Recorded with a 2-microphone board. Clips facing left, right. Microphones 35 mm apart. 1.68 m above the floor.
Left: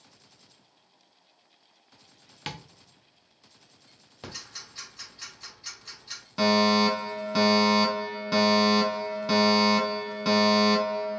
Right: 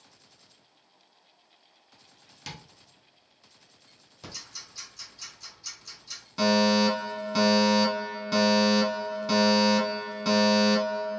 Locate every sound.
2.5 s tapping: 40° left (ahead or behind), 0.8 m
4.2 s ticking: 35° left (ahead or behind), 2 m
6.4 s a fire alarm: 10° left (ahead or behind), 1.4 m